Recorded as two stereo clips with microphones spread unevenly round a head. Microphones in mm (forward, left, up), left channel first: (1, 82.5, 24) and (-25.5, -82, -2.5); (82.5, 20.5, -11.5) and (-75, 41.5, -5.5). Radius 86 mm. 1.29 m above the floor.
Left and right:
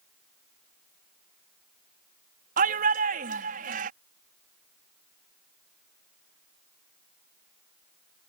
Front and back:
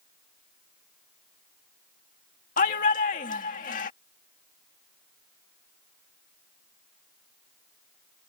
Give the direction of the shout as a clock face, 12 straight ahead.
2 o'clock.